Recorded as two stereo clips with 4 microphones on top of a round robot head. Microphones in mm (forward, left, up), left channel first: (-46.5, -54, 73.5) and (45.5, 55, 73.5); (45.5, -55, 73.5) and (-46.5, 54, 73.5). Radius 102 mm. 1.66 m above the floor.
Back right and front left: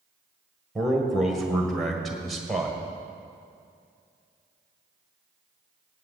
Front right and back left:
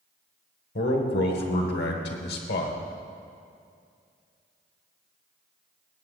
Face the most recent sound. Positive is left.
turn(degrees=-40)